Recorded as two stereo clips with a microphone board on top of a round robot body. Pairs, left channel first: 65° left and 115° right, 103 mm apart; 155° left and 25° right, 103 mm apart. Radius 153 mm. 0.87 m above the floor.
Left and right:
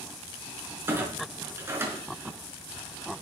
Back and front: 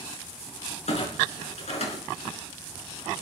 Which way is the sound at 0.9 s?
Straight behind.